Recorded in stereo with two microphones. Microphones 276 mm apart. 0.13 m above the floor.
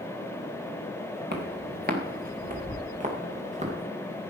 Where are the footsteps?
35° right (ahead or behind), 2.5 m; by 3.7 s 25° right (ahead or behind), 3.5 m.